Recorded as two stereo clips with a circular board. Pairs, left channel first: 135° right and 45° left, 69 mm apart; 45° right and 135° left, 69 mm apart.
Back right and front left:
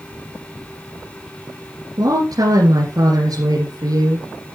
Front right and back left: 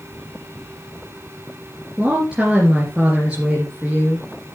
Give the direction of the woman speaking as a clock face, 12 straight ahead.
10 o'clock.